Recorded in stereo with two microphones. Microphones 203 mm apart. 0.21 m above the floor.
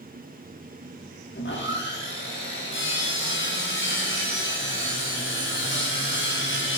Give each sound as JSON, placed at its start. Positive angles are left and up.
{"t": 1.4, "sound": "sawing", "side_deg": 70, "distance_m": 4.5}